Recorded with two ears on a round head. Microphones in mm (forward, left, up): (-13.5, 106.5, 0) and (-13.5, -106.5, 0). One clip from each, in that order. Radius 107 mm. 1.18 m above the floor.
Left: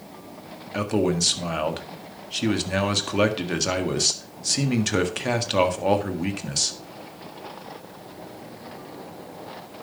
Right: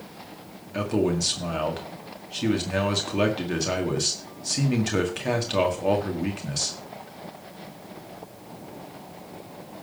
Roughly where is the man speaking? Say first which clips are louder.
Left 1 dB; left.